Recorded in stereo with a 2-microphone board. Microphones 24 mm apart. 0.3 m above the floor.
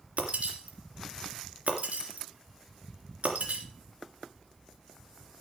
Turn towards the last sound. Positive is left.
turn(degrees=-75)  # may be behind; listen again after turning